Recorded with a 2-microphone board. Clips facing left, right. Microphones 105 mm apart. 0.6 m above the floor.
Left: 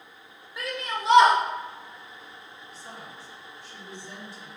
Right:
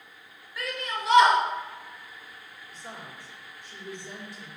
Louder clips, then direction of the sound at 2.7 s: Right 1 dB; 45° right (ahead or behind).